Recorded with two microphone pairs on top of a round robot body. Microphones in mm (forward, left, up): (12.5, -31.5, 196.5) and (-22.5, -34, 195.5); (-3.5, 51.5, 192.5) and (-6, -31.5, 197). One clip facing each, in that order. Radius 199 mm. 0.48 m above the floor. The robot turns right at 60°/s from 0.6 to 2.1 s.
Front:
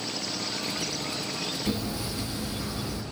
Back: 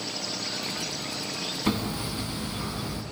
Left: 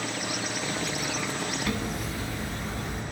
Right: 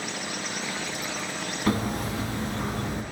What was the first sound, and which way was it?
Hammering, 145° right.